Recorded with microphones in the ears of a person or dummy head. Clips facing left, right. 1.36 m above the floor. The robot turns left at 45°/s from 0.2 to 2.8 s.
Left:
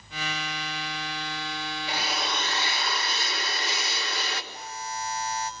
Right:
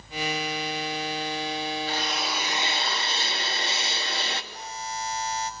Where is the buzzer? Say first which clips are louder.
Right 1 dB; 25° right (ahead or behind), 5 m.